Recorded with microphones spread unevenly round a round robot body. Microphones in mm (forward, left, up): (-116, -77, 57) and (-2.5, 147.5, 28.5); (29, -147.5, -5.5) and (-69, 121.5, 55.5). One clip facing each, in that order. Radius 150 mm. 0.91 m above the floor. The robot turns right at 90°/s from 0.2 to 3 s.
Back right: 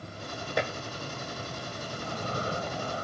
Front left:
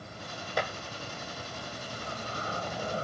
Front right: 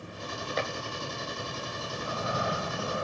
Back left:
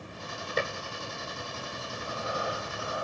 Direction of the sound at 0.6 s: 170° left.